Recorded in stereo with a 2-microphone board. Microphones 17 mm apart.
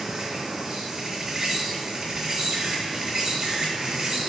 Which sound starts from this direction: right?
An insect, at 0.0 s.